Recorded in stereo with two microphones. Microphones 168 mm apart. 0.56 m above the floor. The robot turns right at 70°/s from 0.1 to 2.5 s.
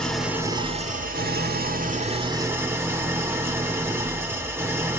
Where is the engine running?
175° left, 1.2 m; by 5.0 s 15° right, 1.2 m.